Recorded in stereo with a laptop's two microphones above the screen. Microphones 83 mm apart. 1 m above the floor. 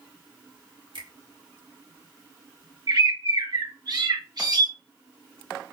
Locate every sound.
0.9 s a finger snap: 75° right (ahead or behind), 1.8 m
2.9 s a bird: 55° right (ahead or behind), 1.4 m